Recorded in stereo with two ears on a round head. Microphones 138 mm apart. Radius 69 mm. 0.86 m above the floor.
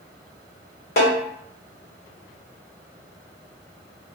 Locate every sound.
1.0 s a snare drum: 65° left (ahead or behind), 1.2 m